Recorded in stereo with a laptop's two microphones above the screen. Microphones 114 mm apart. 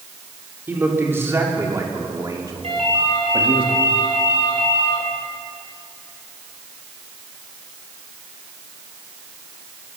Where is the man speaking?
15° right (ahead or behind), 3 m; by 3.6 s 45° right (ahead or behind), 2 m.